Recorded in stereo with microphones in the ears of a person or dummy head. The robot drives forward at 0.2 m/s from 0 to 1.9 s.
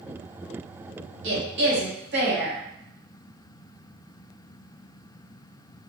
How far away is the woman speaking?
About 1.1 m.